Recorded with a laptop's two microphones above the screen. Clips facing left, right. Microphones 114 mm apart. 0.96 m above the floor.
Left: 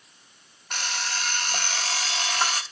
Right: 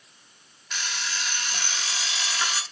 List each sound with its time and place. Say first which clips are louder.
0.7 s an alarm clock: left 2 dB; 55° left (ahead or behind), 1.1 m